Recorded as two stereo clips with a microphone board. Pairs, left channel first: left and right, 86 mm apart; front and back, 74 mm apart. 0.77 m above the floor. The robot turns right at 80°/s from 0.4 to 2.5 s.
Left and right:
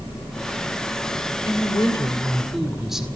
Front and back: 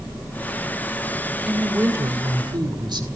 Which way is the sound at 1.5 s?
100° left.